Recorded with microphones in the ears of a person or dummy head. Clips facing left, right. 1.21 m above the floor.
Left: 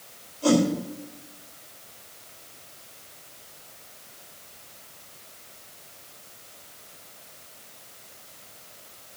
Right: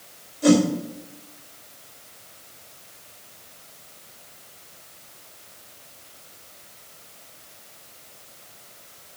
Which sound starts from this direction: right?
A whoosh, at 0.4 s.